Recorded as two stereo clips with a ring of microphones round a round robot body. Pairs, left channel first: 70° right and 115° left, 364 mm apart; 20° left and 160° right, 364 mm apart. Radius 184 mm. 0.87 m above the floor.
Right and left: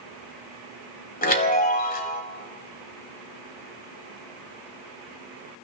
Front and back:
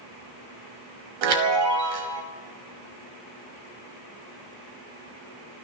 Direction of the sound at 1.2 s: 135° right.